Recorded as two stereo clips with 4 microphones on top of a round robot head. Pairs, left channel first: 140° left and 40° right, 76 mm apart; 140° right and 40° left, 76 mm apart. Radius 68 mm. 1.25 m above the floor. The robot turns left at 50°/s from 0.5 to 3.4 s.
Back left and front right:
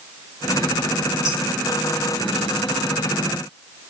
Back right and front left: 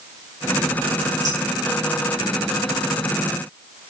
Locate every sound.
1.2 s dishes clattering: 90° left, 6 m; by 1.4 s 80° left, 6 m